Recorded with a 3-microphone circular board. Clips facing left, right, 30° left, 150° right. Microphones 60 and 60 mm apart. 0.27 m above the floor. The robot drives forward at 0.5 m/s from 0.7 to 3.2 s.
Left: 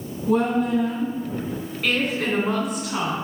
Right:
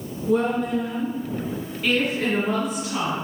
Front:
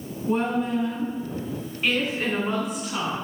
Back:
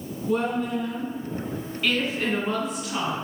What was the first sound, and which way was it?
A woman speaking, 75° left.